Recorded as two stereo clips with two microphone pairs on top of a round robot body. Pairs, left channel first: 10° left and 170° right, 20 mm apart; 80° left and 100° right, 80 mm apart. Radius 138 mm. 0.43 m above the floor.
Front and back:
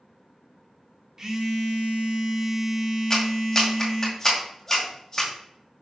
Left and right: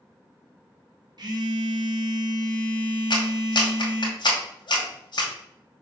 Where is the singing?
I don't hear singing.